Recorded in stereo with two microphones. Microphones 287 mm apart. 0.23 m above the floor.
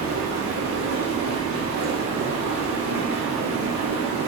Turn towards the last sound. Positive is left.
turn(degrees=-75)  # may be behind; listen again after turning